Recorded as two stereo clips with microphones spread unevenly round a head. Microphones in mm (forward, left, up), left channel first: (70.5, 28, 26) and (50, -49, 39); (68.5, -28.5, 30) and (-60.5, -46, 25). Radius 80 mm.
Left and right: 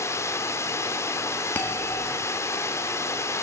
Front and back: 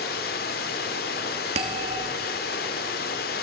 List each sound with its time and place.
0.0 s running water: 20° left, 1.8 m
1.6 s a bell: 145° left, 2 m